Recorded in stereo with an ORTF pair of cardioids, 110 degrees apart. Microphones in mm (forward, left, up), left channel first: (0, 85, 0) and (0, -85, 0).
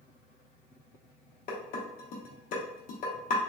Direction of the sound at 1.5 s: 55° left.